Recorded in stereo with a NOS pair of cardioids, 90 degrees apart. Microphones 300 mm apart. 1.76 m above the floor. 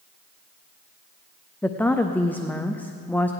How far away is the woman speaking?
About 0.6 m.